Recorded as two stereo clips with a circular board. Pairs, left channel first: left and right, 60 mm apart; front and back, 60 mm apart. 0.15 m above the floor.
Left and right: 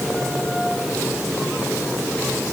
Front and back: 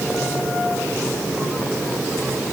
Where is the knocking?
I don't hear knocking.